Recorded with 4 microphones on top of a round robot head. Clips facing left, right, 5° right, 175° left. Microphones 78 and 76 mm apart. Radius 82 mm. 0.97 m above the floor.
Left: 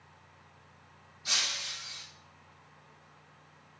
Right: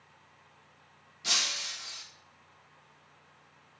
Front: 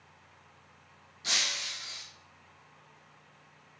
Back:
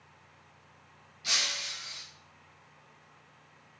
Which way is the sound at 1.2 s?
70° right.